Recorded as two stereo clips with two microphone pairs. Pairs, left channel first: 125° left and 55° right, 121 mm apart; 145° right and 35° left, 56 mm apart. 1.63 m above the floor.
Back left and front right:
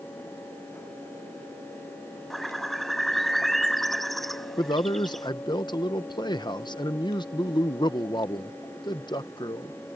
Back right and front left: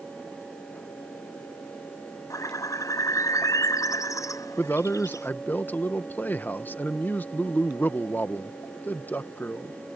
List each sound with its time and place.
2.3 s a bird: 150° right
4.6 s a man speaking: 165° left